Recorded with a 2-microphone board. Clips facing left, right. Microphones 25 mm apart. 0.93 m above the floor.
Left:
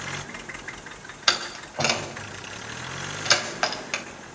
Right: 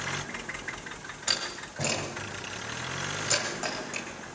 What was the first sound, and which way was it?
A door slam, 65° left (ahead or behind).